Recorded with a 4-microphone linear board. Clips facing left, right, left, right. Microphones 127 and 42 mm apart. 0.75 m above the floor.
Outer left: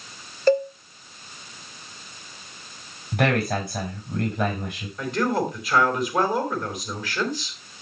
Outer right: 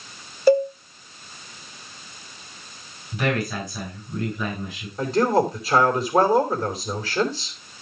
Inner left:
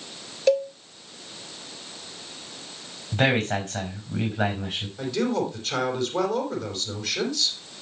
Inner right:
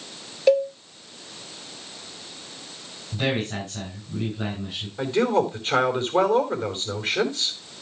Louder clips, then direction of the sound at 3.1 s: Outer left 2 dB, inner left 4 dB; 65° left (ahead or behind).